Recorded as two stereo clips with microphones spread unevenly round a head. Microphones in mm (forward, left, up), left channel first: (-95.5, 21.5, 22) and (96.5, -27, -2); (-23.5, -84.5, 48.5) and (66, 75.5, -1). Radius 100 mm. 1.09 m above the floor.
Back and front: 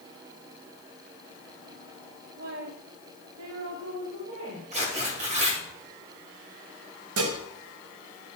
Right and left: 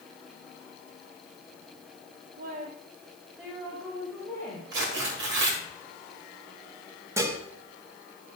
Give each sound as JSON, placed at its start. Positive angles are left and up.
{"t": 2.4, "sound": "a woman speaking", "azimuth_deg": 35, "distance_m": 0.8}
{"t": 4.7, "sound": "tearing paper", "azimuth_deg": 45, "distance_m": 2.5}
{"t": 7.2, "sound": "dishes clattering", "azimuth_deg": -15, "distance_m": 1.3}